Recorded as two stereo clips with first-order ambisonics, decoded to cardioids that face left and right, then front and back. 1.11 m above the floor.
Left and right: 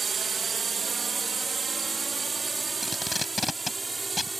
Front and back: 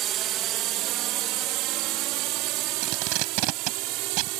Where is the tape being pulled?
170° left.